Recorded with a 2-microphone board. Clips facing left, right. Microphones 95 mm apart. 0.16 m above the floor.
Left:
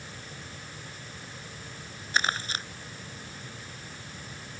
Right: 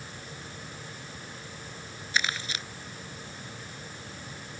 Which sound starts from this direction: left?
Crumpling, at 2.1 s.